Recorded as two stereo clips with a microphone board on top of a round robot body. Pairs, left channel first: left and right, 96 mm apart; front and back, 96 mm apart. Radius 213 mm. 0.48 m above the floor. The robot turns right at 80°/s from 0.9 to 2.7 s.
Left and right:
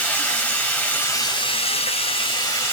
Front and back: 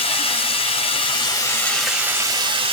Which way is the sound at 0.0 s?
15° left.